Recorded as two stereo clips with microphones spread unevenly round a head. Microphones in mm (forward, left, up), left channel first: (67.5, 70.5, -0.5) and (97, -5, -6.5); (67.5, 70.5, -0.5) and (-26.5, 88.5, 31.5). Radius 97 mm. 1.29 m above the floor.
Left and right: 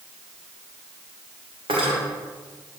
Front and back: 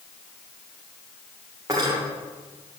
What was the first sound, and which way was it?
Cutlery clinking, 120° right.